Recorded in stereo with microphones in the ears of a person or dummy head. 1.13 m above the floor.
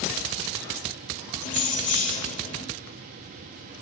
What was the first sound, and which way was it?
Keys jangling, 35° left (ahead or behind).